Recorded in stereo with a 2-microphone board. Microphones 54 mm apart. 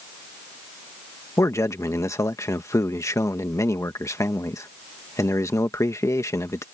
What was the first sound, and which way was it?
A man speaking, 65° left (ahead or behind).